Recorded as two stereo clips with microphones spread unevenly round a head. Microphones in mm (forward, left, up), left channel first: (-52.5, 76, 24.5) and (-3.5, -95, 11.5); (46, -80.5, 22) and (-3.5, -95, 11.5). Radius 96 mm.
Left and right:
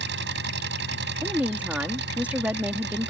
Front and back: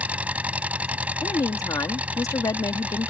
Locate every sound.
0.0 s an engine running: 100° right
1.2 s a woman speaking: 10° left